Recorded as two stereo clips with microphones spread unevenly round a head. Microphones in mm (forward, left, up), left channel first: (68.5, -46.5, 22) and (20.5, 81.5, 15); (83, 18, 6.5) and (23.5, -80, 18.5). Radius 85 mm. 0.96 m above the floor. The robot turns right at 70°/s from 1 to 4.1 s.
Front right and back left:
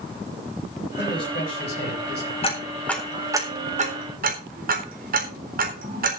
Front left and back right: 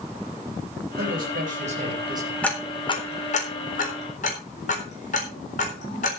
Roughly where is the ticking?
Ahead.